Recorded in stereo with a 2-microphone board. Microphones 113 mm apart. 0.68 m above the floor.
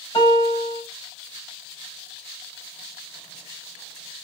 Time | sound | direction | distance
0.1 | a piano | 45° left (ahead or behind) | 3.5 m